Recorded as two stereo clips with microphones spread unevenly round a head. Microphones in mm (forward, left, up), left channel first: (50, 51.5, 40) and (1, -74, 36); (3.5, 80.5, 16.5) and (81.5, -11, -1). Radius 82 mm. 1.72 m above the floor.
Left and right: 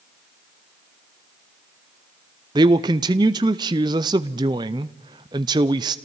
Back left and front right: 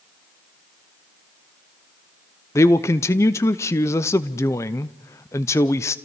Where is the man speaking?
170° right, 0.5 m.